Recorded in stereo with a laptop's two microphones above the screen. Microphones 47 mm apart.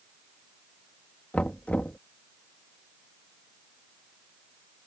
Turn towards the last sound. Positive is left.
turn(degrees=30)  # may be behind; listen again after turning